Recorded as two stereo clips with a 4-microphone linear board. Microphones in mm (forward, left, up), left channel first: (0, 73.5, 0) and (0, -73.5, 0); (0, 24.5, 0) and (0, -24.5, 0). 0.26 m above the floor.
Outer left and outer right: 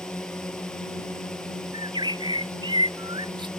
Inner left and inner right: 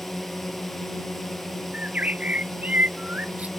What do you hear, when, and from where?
0.0 s a drone: 5° left (ahead or behind)
1.7 s a bird: 30° right (ahead or behind)